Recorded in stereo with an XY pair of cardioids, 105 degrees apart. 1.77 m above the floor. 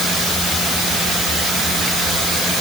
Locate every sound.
Only background noise.